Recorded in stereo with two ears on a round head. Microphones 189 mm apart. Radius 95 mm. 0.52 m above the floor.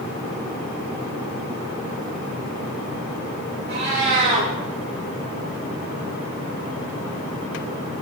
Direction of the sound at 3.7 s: 55° right (ahead or behind).